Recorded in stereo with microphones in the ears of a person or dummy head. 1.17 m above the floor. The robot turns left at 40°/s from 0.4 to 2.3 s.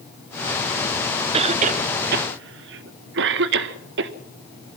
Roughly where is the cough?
Right.